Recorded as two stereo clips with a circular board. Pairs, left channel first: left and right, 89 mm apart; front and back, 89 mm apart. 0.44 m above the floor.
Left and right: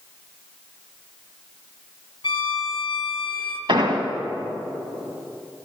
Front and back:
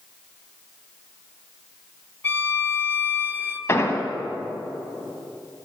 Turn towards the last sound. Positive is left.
turn(degrees=-60)